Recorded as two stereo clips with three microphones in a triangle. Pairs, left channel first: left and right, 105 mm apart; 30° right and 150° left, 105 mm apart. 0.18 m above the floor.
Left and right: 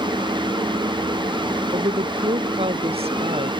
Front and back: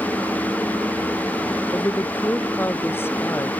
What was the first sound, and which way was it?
A woman speaking, 100° right.